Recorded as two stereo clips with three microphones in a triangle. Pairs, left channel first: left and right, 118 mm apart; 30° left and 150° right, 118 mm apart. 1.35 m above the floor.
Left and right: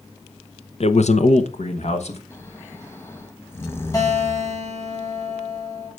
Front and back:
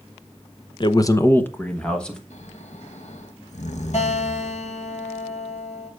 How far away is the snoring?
About 1.3 m.